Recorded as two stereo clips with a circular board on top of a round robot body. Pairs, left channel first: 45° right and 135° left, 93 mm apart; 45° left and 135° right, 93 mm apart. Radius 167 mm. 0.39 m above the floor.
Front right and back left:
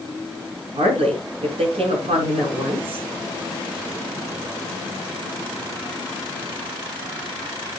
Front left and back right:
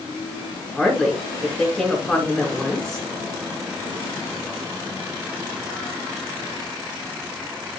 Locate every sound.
0.8 s a woman speaking: 130° left, 6 m